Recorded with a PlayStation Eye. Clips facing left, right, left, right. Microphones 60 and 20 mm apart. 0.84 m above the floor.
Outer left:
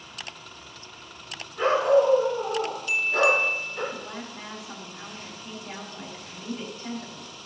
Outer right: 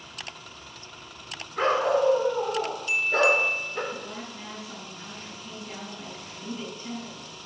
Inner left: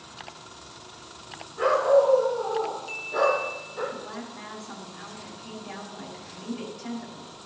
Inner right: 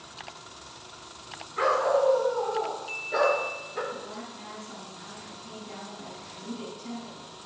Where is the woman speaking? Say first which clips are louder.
Even, inner left 1 dB; 80° left, 4.5 m.